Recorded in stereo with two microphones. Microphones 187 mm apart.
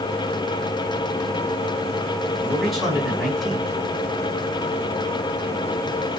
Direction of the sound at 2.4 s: Centre (ahead or behind).